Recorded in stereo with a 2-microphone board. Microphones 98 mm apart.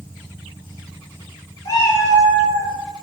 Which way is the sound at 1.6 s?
35° left (ahead or behind).